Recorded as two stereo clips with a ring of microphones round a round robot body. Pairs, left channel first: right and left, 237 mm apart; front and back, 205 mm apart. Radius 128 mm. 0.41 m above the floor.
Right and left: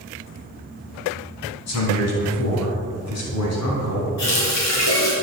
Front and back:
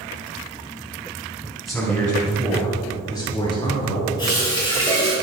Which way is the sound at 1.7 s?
90° right.